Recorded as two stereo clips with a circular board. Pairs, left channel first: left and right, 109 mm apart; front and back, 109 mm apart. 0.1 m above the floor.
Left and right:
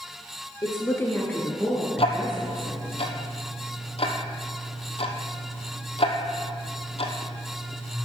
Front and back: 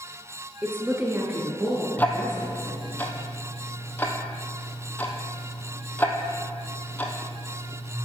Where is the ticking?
75° left, 1.0 m.